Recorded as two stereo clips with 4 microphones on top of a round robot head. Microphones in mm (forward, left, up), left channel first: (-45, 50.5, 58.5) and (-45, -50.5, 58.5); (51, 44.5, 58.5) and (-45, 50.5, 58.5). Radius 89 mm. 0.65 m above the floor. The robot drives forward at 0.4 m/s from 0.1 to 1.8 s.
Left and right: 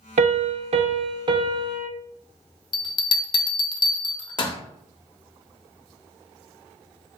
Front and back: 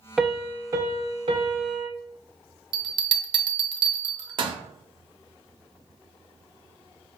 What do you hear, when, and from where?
0.2 s a piano: 95° right, 0.5 m; by 1.9 s 145° right, 0.9 m
2.7 s a bell: 135° left, 0.8 m